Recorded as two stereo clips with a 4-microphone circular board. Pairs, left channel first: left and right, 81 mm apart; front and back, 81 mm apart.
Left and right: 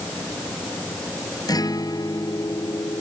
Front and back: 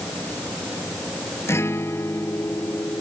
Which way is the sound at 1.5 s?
55° left.